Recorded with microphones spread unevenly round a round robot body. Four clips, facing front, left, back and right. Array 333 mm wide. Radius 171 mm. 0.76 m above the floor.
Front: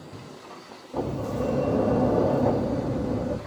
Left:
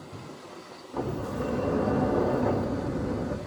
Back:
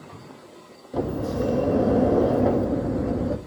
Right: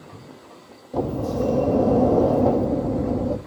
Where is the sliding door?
110° right, 1.4 m.